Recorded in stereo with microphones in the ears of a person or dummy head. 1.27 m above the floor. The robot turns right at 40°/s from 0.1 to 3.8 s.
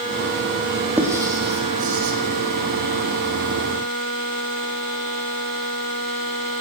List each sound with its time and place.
1.0 s writing: 10° right (ahead or behind), 1.8 m; by 2.1 s 55° right (ahead or behind), 1.8 m